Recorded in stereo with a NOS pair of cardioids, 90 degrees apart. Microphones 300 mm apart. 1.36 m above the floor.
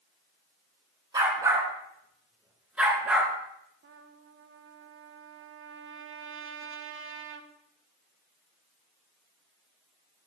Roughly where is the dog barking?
Ahead.